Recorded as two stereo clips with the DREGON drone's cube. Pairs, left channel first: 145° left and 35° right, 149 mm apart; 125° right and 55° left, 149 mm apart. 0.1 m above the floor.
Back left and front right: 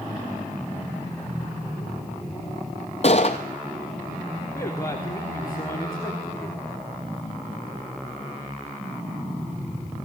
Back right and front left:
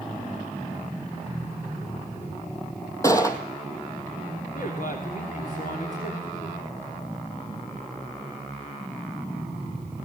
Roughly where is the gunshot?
Behind.